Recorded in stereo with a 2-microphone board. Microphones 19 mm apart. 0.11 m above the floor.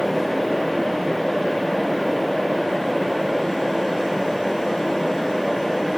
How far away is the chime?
No chime in this recording.